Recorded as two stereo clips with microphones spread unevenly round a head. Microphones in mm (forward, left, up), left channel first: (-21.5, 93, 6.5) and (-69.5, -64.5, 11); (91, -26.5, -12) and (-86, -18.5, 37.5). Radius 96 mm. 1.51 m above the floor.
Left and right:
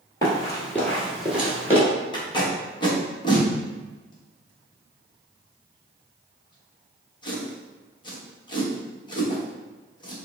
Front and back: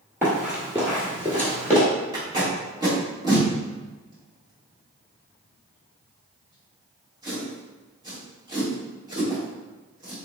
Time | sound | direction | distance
0.2 | running footsteps | 125° left | 1.8 m
2.1 | tape being pulled | 130° left | 1.1 m